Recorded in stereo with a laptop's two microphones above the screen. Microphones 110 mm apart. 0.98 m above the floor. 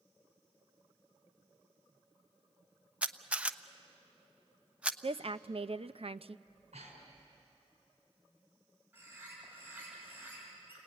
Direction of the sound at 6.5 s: 80° right.